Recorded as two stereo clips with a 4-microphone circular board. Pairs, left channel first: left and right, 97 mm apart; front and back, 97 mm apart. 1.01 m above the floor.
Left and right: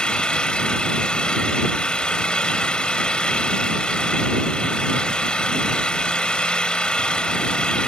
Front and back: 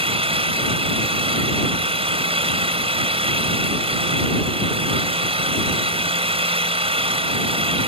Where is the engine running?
170° left.